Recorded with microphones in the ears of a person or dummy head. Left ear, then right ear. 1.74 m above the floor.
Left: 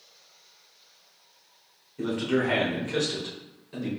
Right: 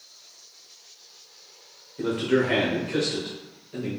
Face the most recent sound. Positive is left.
turn(degrees=45)  # may be behind; listen again after turning